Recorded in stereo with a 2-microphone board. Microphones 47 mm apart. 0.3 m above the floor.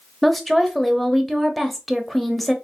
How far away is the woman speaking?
About 0.9 m.